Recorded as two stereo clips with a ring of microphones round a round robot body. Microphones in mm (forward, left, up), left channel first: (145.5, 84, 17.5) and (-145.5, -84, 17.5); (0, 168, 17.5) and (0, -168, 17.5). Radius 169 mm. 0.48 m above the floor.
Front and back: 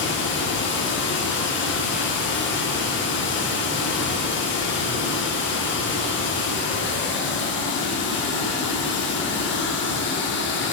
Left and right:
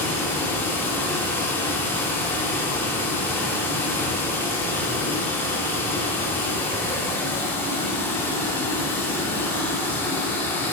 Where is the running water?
10° left, 0.8 m.